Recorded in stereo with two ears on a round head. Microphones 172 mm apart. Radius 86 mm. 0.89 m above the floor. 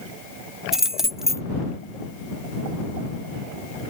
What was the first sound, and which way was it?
Keys jangling, centre (ahead or behind).